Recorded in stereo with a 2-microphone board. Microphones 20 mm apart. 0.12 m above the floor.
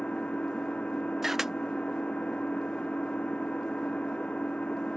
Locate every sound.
0.0 s an engine running: 60° left (ahead or behind)
1.2 s a camera shutter: 15° right (ahead or behind)